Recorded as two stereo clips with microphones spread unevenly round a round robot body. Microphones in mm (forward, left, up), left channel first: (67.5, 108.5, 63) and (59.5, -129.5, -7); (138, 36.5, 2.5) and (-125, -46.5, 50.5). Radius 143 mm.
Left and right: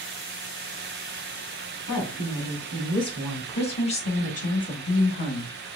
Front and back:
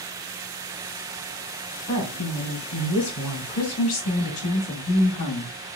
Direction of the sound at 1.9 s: 10° left.